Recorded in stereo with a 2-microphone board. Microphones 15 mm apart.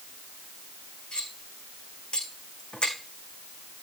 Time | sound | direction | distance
1.1 | cutlery clinking | 70° left (ahead or behind) | 4 m